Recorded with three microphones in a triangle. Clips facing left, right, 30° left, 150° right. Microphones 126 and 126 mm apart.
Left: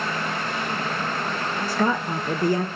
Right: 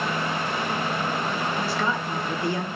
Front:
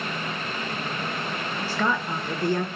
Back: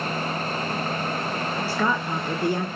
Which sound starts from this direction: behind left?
A woman speaking, at 1.7 s.